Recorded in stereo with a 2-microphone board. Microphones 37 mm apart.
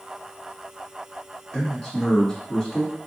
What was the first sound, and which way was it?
A man speaking, 15° left (ahead or behind).